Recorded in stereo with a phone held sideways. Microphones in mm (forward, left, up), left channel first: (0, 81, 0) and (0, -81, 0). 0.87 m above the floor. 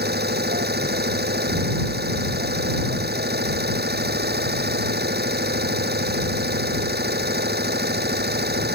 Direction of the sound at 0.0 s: 90° right.